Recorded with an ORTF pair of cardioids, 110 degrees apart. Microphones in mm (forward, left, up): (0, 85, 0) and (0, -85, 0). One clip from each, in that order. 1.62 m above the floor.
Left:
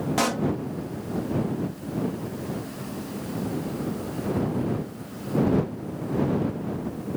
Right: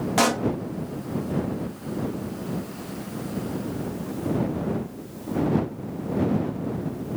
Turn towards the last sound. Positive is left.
turn(degrees=-25)